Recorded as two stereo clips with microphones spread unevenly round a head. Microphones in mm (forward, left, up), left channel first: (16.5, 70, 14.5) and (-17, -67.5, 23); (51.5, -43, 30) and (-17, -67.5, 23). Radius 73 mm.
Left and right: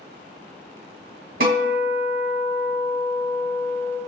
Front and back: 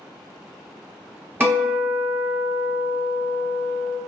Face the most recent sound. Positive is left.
turn(degrees=-95)